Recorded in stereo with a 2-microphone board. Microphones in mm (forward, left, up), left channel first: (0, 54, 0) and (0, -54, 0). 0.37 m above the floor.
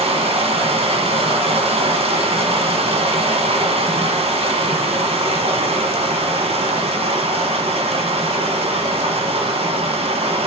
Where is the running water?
70° right (ahead or behind), 1.4 m.